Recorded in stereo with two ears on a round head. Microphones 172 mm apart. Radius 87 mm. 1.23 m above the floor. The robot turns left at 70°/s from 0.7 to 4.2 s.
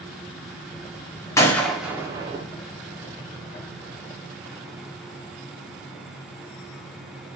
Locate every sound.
1.4 s a gunshot: 15° left (ahead or behind), 0.6 m; by 2.5 s 30° right (ahead or behind), 0.6 m